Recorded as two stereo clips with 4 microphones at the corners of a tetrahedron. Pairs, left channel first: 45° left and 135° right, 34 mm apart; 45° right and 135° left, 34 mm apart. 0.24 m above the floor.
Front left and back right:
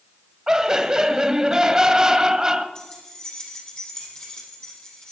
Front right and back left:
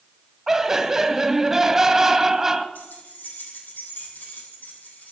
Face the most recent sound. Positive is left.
turn(degrees=-15)